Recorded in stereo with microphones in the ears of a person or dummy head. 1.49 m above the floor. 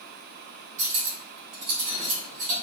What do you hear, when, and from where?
0.8 s cutlery clinking: 50° right (ahead or behind), 1.4 m